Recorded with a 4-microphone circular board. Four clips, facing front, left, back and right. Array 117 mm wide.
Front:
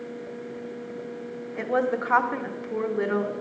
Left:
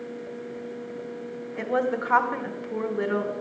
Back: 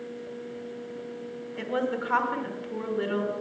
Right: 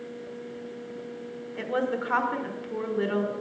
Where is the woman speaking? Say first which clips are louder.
Left 3 dB, front 4 dB; 30° left, 0.8 m.